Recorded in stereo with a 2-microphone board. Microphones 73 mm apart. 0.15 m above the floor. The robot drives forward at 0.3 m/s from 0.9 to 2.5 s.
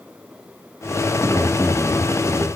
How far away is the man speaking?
About 1.7 m.